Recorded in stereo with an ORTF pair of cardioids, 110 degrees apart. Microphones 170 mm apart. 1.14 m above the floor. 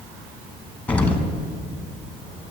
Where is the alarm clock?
No alarm clock in this recording.